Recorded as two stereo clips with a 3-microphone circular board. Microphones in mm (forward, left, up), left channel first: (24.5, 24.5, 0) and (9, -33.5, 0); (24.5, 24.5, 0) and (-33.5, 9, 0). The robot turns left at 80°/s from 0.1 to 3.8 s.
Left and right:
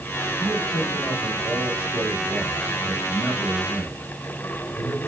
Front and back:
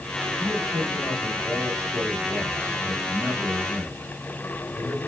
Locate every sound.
0.4 s a man speaking: 35° left, 3 m; by 5.1 s 120° left, 3 m